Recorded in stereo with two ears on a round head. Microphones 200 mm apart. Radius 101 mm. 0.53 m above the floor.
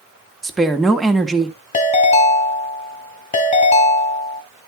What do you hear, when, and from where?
0.4 s a woman speaking: centre (ahead or behind), 1.2 m
1.7 s a ringtone: 35° left (ahead or behind), 1.7 m